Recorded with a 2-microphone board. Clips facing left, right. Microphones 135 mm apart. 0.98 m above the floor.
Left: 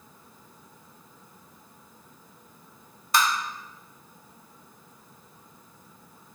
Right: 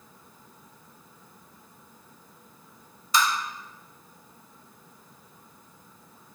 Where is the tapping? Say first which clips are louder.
Left 1 dB; 55° left (ahead or behind), 0.6 m.